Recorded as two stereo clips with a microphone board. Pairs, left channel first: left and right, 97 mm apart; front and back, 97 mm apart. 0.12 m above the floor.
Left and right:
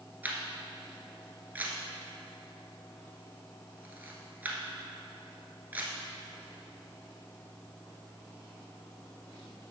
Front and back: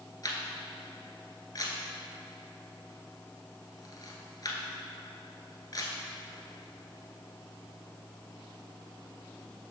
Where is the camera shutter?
25° right, 1.2 m.